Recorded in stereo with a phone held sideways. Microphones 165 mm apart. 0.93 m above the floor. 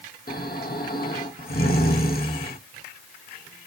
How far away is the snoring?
About 1.1 m.